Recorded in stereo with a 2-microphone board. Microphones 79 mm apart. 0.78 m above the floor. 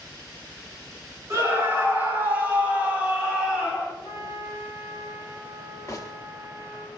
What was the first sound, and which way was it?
A scream, 35° right (ahead or behind).